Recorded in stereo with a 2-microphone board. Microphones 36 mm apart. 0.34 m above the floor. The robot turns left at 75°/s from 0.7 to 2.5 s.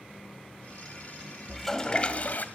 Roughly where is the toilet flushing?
Behind.